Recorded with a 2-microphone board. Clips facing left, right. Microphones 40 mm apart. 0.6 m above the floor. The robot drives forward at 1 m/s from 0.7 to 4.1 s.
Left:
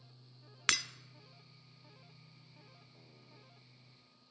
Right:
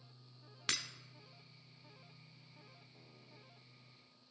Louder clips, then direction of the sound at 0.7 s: Left 7 dB; 80° left.